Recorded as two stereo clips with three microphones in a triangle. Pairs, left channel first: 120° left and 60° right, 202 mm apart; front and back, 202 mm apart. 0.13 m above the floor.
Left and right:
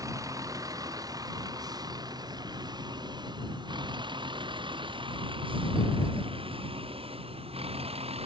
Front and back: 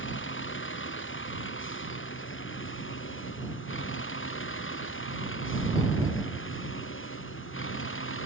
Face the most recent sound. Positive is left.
turn(degrees=0)